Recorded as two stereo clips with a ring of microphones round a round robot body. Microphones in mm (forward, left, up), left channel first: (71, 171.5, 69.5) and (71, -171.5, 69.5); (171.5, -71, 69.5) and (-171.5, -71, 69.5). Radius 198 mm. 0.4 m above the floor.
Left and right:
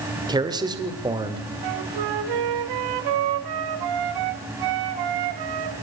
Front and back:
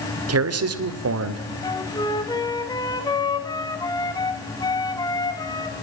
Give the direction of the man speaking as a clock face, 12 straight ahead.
5 o'clock.